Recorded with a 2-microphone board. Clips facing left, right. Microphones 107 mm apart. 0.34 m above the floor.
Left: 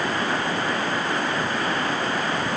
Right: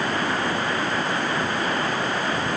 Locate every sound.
Only background noise.